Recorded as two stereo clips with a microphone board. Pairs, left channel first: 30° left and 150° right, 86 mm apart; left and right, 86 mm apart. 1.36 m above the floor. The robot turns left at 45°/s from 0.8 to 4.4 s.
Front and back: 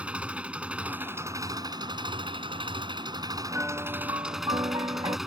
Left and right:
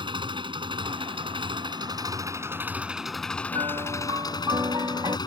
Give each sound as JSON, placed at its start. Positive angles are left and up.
{"t": 0.0, "sound": "an engine running", "azimuth_deg": -75}
{"t": 3.5, "sound": "a piano", "azimuth_deg": -85}